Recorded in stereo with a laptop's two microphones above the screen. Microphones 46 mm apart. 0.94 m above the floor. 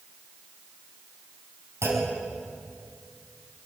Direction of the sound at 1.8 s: 85° right.